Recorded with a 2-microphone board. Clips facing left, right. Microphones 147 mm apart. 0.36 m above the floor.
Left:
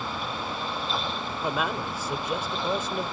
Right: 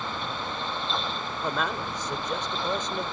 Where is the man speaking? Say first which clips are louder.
Left 1 dB; 5° left (ahead or behind).